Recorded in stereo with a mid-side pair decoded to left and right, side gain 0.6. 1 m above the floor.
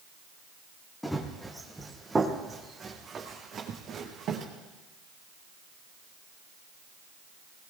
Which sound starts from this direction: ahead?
Running footsteps, at 1.0 s.